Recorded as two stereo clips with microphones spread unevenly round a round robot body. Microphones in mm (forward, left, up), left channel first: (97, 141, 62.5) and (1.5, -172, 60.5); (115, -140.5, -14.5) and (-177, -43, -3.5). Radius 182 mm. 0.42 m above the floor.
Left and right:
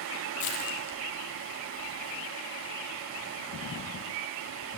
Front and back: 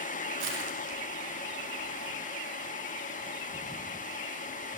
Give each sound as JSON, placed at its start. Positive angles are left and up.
{"t": 0.4, "sound": "crushing", "azimuth_deg": 100, "distance_m": 4.5}